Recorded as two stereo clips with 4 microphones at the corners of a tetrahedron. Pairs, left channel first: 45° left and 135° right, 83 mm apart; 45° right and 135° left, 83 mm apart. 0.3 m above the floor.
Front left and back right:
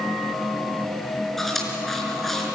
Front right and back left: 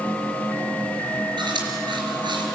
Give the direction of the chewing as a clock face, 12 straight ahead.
8 o'clock.